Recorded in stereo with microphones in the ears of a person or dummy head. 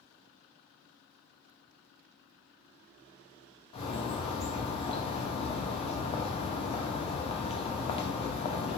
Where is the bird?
35° left (ahead or behind), 0.6 m.